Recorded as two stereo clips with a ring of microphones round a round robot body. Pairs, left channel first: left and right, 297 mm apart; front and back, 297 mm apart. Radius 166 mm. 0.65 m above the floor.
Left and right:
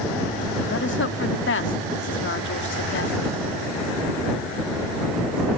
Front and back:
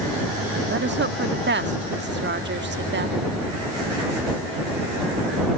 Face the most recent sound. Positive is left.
turn(degrees=135)